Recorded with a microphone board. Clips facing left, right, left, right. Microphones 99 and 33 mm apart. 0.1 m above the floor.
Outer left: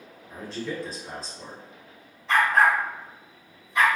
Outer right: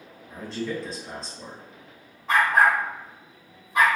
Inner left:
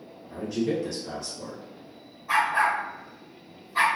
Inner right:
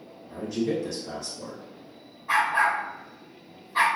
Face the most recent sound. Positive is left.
turn(degrees=-50)  # may be behind; listen again after turning